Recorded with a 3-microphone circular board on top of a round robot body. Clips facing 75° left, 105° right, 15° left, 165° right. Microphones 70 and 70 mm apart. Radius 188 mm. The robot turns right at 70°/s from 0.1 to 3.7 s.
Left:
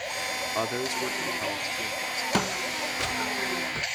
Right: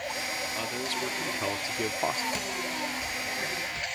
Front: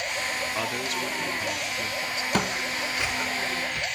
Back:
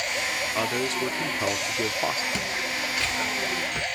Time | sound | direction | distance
0.6 | a man speaking | 115° left | ?
2.3 | footsteps | 45° left | ?